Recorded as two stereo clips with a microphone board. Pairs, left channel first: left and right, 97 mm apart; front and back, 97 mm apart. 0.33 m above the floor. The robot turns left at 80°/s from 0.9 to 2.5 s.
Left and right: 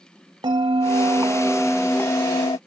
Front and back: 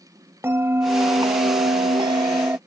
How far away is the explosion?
No explosion in this recording.